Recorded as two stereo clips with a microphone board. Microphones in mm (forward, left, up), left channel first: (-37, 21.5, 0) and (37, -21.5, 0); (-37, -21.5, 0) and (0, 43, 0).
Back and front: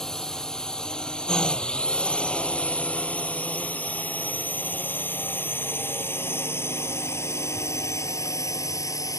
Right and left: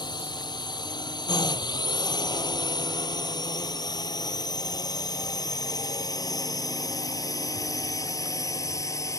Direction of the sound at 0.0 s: 125° right.